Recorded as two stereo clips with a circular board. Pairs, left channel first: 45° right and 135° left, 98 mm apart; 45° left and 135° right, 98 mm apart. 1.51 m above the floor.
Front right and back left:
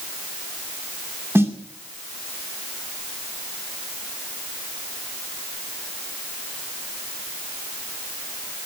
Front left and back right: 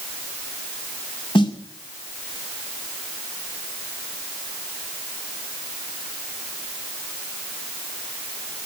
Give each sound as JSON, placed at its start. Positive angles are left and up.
{"t": 1.4, "sound": "a snare drum", "azimuth_deg": 70, "distance_m": 2.5}